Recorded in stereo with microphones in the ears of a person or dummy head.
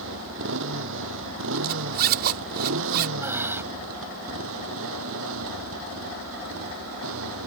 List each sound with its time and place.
0.0 s a motorcycle: 75° right (ahead or behind); by 7.5 s 80° right
1.6 s a zipper: 55° right (ahead or behind)
3.2 s breathing: 10° right (ahead or behind)